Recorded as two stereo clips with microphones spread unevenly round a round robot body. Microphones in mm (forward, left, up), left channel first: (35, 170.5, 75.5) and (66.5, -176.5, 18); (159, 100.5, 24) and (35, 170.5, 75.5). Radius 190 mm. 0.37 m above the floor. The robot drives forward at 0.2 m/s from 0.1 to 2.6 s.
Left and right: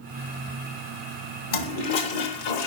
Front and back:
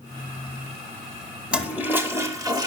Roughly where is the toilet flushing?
Ahead left.